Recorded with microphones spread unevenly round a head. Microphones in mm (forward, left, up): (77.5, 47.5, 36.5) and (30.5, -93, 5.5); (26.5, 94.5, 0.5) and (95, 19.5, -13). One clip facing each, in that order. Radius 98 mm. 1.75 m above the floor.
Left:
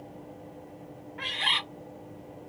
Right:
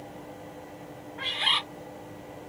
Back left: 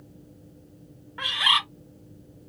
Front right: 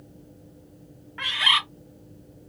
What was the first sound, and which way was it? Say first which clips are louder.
A bird: right 1 dB, even; 105° left.